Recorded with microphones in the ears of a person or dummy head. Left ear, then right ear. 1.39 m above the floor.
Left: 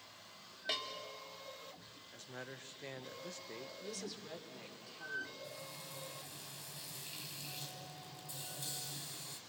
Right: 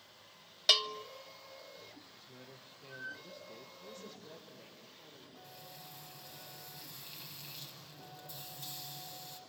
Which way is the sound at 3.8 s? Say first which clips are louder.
Left 4 dB; 60° left (ahead or behind).